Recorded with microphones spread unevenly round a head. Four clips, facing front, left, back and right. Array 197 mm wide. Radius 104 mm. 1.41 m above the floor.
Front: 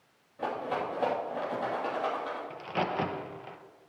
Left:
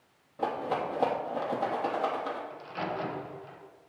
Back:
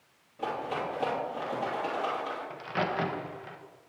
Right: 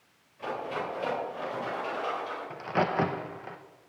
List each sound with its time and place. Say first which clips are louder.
0.4 s a rattle: left 3 dB, even; 85° left, 2.5 m
2.5 s a crack: right 7 dB, even; 80° right, 1.1 m